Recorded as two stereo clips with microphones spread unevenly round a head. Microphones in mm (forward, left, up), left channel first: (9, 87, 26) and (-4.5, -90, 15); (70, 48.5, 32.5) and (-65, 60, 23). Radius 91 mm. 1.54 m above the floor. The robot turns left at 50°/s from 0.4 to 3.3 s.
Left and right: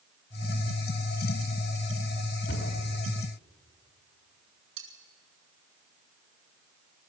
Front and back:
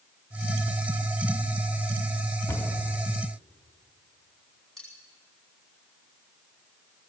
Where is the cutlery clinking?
90° right, 4.5 m.